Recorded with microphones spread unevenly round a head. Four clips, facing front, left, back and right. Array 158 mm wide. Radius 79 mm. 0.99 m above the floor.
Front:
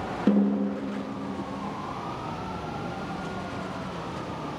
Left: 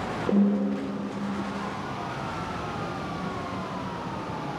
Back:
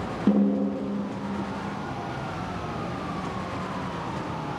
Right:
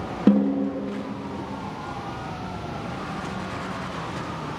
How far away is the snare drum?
About 9 m.